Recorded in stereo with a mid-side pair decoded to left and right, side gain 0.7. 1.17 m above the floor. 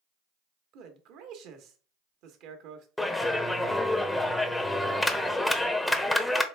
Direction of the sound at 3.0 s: 10° left.